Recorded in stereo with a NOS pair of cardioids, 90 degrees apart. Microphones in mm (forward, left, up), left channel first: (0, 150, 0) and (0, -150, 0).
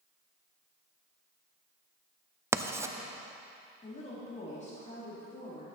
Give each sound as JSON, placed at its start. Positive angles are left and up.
{"t": 2.5, "sound": "writing", "azimuth_deg": -10, "distance_m": 0.5}
{"t": 3.8, "sound": "a woman speaking", "azimuth_deg": 25, "distance_m": 3.5}